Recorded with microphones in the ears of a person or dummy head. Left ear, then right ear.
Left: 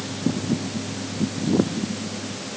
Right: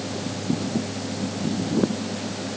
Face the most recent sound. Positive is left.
No sound to turn to.